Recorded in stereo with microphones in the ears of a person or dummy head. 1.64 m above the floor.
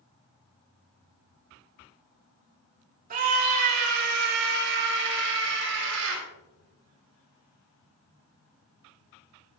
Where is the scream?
45° right (ahead or behind), 3 m; by 6.2 s 75° right (ahead or behind), 5.5 m.